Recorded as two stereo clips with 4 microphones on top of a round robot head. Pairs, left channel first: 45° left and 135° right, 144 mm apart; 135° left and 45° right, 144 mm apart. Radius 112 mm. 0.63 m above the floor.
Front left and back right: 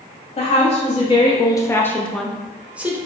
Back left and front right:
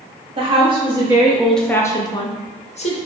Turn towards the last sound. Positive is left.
turn(degrees=150)